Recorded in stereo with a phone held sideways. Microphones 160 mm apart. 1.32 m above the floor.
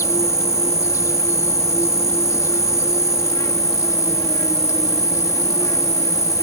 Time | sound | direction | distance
0.0 | an insect | 20° left (ahead or behind) | ?